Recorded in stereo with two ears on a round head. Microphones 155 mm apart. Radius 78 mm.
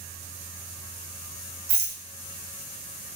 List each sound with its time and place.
1.7 s a rattle: 60° right (ahead or behind), 0.7 m